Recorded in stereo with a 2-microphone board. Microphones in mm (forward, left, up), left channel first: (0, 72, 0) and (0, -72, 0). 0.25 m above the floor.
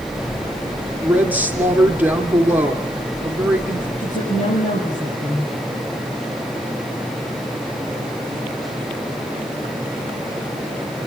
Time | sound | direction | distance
1.0 | a woman speaking | 10° right (ahead or behind) | 3 m
4.0 | a woman speaking | 55° left (ahead or behind) | 6 m